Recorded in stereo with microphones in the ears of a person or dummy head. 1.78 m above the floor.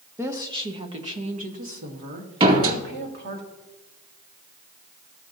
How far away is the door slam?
About 2 m.